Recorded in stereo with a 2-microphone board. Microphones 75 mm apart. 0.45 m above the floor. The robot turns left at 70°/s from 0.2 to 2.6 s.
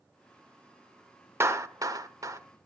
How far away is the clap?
About 0.8 m.